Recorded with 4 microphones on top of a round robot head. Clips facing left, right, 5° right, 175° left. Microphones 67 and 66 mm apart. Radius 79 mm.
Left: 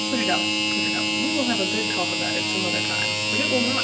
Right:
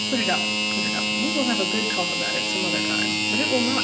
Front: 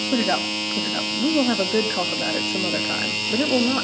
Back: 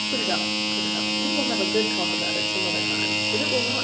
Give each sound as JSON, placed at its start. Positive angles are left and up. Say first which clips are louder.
{"t": 0.1, "sound": "a woman speaking", "louder": "even, front 5 dB", "azimuth_deg": -5, "distance_m": 1.8}